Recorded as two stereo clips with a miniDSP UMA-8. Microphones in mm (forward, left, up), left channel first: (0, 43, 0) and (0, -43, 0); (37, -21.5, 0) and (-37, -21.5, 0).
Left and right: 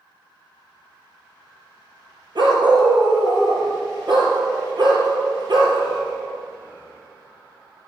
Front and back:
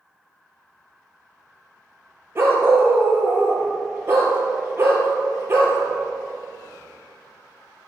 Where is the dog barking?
125° right, 3.5 m.